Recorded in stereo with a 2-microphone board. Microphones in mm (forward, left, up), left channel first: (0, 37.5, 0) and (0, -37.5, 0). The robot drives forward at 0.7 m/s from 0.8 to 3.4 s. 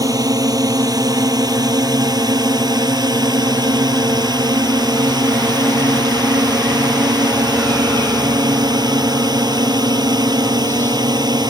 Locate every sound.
0.0 s a drone: 55° right (ahead or behind); by 11.5 s 65° right (ahead or behind)